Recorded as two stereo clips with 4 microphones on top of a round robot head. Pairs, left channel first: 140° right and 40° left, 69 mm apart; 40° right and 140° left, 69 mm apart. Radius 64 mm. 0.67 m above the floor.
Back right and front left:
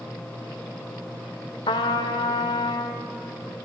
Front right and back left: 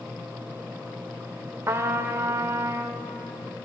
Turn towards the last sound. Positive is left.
turn(degrees=-160)